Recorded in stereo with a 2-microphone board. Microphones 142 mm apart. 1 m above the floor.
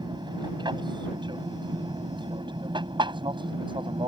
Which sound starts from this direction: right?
An aircraft, at 0.0 s.